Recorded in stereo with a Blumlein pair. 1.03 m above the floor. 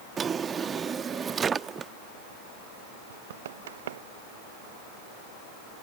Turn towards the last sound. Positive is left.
turn(degrees=-60)